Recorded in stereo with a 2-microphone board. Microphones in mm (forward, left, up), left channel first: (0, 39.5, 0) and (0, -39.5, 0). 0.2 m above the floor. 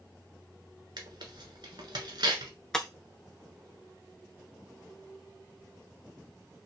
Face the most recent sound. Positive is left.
turn(degrees=10)  # may be behind; listen again after turning